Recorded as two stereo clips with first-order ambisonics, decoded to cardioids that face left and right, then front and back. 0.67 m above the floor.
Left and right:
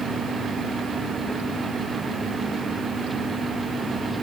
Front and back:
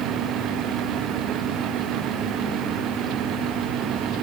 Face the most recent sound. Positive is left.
No sound to turn to.